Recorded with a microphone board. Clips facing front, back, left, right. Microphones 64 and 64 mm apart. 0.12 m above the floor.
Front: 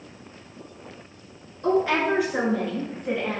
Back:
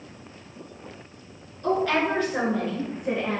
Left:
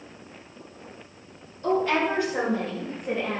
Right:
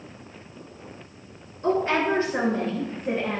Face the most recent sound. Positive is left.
turn(degrees=-115)